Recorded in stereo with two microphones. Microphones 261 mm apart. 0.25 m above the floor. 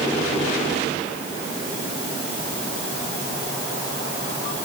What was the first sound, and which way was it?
Only background noise.